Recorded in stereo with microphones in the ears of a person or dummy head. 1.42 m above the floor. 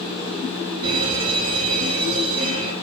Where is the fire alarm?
30° right (ahead or behind), 8 m.